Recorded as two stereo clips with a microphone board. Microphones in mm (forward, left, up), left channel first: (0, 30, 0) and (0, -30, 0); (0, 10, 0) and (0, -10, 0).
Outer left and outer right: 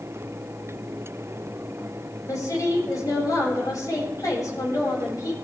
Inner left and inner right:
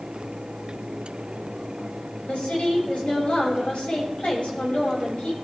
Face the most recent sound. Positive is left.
turn(degrees=75)  # may be behind; listen again after turning